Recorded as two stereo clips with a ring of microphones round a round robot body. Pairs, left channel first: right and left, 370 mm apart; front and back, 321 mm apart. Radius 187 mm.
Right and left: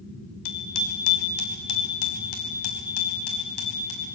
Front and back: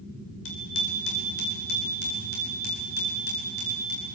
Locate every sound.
0.5 s a bicycle bell: 60° right, 2.5 m; by 4.1 s 65° right, 6 m